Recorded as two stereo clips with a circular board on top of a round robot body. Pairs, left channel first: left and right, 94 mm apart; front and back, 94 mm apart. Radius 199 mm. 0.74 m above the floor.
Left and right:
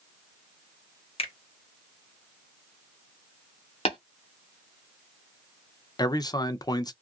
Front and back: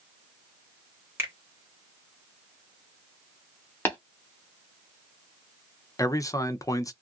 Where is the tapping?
70° left, 0.9 m.